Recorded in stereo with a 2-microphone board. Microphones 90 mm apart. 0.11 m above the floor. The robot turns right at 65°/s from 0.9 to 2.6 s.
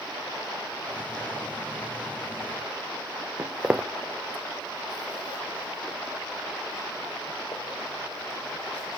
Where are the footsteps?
25° right (ahead or behind), 0.7 m; by 9.0 s 80° left, 2.5 m.